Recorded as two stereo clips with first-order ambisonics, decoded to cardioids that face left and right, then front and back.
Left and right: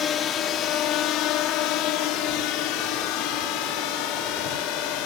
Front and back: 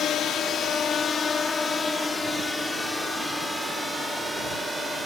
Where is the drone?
40° left; by 5.1 s 95° left.